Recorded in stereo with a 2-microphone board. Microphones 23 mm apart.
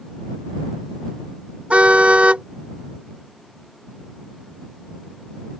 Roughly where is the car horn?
Right.